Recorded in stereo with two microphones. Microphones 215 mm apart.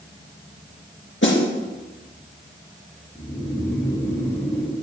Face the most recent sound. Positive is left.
turn(degrees=10)  # may be behind; listen again after turning